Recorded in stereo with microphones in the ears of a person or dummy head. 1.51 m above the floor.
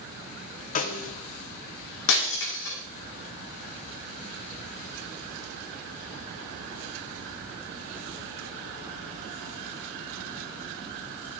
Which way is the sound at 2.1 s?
70° left (ahead or behind).